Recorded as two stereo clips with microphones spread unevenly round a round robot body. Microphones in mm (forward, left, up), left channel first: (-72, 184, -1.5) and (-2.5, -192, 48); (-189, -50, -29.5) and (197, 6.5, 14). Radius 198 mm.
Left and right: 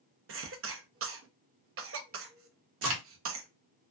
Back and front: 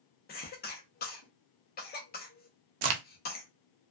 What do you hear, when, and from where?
0.3 s a cough: 130° right, 0.6 m
2.8 s a crack: 20° right, 0.5 m